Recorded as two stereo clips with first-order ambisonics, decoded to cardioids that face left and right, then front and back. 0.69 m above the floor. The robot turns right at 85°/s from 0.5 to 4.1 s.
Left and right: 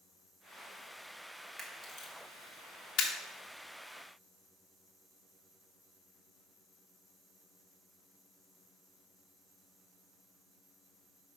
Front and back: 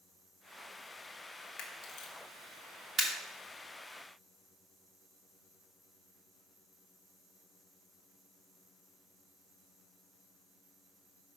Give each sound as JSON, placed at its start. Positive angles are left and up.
{"t": 1.6, "sound": "a camera shutter", "azimuth_deg": 0, "distance_m": 1.4}